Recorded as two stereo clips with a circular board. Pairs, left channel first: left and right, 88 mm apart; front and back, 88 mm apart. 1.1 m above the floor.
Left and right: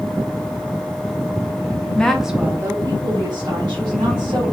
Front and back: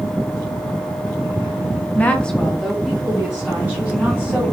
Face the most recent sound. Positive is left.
turn(degrees=-105)